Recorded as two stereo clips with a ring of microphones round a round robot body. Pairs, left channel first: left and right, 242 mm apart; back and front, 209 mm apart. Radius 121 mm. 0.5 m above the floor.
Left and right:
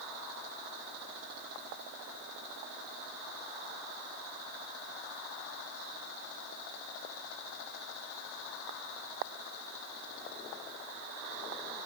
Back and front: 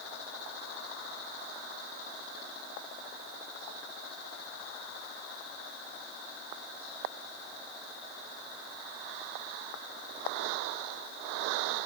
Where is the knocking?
No knocking in this recording.